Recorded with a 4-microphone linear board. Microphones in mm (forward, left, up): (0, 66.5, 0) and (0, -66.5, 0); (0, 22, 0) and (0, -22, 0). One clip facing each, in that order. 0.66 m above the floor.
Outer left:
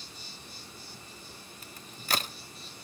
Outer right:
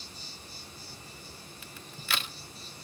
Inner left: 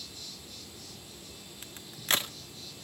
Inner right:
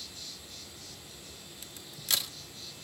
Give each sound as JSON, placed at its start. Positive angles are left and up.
{"t": 0.0, "sound": "an insect", "side_deg": -35, "distance_m": 7.5}
{"t": 1.6, "sound": "a crack", "side_deg": 40, "distance_m": 0.6}